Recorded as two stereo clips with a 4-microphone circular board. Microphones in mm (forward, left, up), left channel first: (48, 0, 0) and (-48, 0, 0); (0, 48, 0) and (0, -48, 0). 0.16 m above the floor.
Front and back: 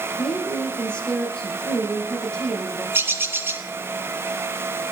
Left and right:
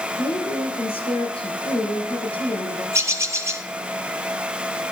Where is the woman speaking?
80° left, 6 m.